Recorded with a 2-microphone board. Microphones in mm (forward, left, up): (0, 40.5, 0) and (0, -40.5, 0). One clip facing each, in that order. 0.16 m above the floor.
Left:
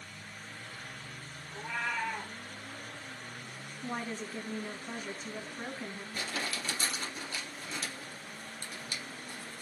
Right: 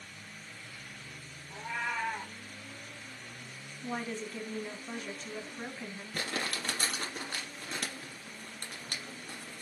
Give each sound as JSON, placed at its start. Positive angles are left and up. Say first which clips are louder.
{"t": 1.5, "sound": "a cat meowing", "louder": "even", "side_deg": -15, "distance_m": 2.5}
{"t": 3.8, "sound": "a woman speaking", "louder": "right 1 dB", "side_deg": 5, "distance_m": 1.2}
{"t": 6.1, "sound": "crumpling", "louder": "right 2 dB", "side_deg": -55, "distance_m": 2.0}